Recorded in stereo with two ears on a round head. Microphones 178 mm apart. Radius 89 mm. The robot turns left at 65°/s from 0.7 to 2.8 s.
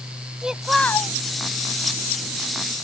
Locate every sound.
0.4 s a child speaking: 5° right (ahead or behind); by 1.2 s 25° left (ahead or behind)